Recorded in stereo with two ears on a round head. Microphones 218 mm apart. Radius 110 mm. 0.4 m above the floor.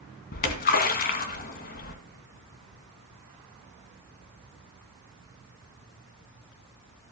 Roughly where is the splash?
Left.